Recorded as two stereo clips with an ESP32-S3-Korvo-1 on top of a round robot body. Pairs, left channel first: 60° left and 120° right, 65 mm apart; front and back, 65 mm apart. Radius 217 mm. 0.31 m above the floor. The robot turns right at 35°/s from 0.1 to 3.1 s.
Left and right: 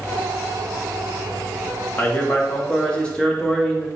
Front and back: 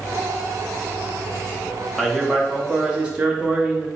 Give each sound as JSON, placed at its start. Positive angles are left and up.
{"t": 2.0, "sound": "a man speaking", "azimuth_deg": 85, "distance_m": 1.1}